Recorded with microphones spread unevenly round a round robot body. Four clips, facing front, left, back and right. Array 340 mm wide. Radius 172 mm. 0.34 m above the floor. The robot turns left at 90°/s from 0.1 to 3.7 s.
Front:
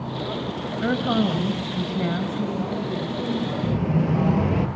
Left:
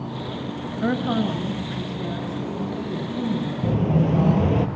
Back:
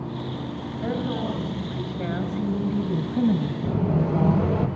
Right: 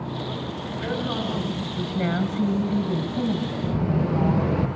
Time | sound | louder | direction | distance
0.8 | a woman speaking | left 6 dB, front 5 dB | 35° left | 6 m
3.6 | an explosion | left 4 dB, even | 65° left | 5 m